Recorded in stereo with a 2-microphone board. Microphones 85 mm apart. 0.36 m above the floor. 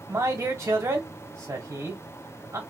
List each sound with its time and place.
0.1 s a man speaking: 35° right (ahead or behind), 1.6 m